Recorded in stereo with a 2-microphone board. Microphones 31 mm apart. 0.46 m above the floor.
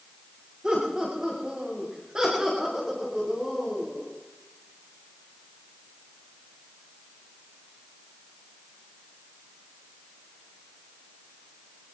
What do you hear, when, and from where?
0.6 s laughter: 25° right (ahead or behind), 6.5 m; by 4.1 s 15° right (ahead or behind), 5 m